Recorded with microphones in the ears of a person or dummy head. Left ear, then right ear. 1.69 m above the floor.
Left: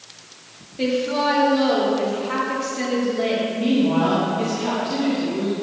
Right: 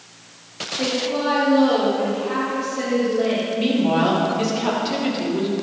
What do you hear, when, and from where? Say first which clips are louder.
0.8 s a woman speaking: left 2 dB; 15° left (ahead or behind), 1.2 m
3.6 s a woman speaking: right 1 dB; 30° right (ahead or behind), 3 m